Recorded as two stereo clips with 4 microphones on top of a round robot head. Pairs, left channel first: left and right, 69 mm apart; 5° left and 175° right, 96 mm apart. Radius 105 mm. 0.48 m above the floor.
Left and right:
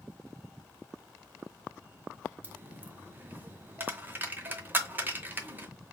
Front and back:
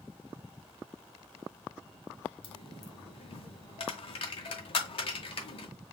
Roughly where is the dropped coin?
Ahead right.